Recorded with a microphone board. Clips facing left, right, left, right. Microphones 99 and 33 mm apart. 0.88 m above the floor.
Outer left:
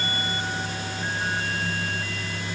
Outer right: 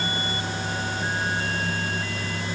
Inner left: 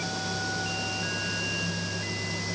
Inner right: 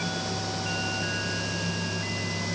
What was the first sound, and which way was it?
Only background noise.